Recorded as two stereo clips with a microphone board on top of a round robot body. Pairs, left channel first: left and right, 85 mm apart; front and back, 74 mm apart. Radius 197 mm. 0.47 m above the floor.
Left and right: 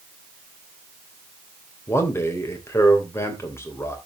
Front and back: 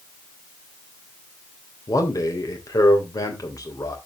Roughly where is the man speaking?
Ahead left.